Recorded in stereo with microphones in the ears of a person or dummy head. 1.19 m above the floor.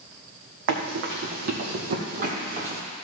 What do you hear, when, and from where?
0.7 s running footsteps: 60° right (ahead or behind), 2.5 m; by 2.8 s 40° right (ahead or behind), 2.0 m